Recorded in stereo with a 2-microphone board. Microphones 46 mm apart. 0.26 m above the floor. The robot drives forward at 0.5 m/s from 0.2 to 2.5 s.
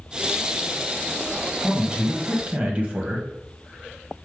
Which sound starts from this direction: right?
A man speaking, at 1.6 s.